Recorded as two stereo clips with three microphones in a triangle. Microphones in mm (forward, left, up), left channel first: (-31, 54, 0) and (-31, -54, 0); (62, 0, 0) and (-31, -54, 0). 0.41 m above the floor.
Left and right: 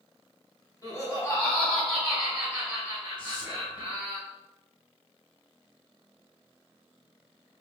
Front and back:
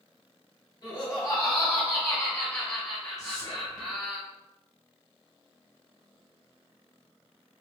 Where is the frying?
No frying in this recording.